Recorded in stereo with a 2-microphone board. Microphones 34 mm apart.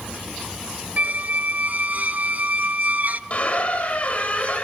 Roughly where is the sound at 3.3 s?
Left.